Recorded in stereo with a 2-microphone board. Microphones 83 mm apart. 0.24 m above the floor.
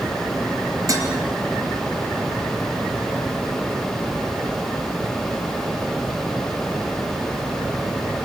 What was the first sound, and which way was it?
Dishes clattering, 40° right (ahead or behind).